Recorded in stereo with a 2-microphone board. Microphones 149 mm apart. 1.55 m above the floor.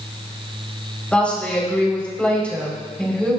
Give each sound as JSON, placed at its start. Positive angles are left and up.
{"t": 1.1, "sound": "a woman speaking", "side_deg": 5, "distance_m": 4.5}